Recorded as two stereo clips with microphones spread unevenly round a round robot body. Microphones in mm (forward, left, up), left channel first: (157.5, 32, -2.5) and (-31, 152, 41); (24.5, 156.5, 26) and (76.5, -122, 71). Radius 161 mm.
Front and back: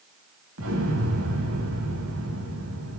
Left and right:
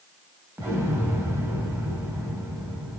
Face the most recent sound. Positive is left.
turn(degrees=-160)